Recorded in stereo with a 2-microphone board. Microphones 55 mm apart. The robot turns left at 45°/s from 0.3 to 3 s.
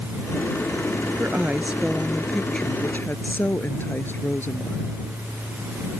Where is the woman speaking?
135° right; by 5.0 s 140° left.